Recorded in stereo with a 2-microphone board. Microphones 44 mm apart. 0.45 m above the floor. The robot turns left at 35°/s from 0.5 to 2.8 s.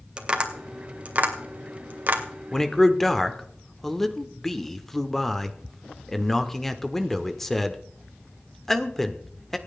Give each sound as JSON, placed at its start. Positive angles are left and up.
{"t": 0.2, "sound": "tapping", "side_deg": -25, "distance_m": 2.0}
{"t": 2.5, "sound": "a man speaking", "side_deg": 10, "distance_m": 1.3}